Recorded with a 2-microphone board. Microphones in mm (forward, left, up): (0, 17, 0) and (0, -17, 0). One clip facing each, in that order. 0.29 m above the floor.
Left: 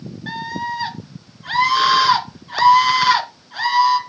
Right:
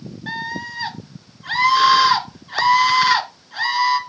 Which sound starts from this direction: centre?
A scream, at 0.3 s.